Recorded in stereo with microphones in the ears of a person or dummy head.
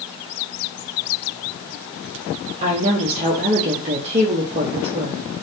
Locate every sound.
2.6 s a woman speaking: 35° right (ahead or behind), 0.7 m